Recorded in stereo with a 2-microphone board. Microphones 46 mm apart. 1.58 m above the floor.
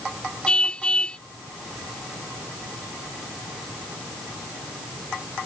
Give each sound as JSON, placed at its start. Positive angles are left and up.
{"t": 0.5, "sound": "a car horn", "side_deg": 25}